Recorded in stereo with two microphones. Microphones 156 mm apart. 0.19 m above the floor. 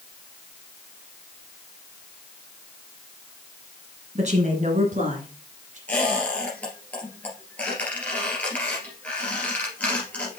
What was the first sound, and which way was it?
A woman speaking, 50° right (ahead or behind).